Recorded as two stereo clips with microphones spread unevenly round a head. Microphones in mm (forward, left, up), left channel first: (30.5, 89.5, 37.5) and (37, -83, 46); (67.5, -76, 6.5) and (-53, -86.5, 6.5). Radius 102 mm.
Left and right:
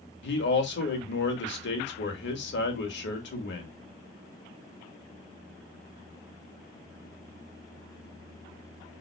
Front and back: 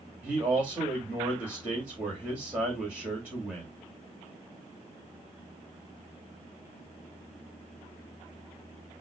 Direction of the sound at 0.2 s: 100° left.